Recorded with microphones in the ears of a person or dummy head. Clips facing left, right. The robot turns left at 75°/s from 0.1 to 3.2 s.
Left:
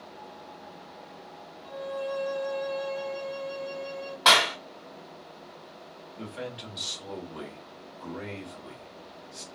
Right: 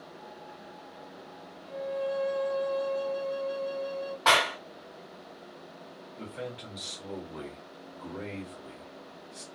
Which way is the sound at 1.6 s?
105° left.